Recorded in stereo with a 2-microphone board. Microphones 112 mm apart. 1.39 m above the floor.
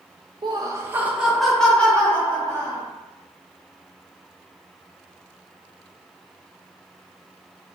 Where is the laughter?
40° right (ahead or behind), 0.8 m; by 2.8 s 25° left (ahead or behind), 1.8 m.